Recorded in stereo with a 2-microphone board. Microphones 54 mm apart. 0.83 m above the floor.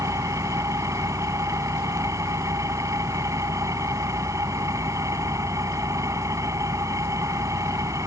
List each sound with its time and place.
0.0 s an engine running: 75° right (ahead or behind)